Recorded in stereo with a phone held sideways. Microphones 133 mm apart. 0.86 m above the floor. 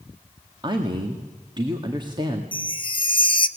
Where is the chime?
35° left (ahead or behind), 0.9 m.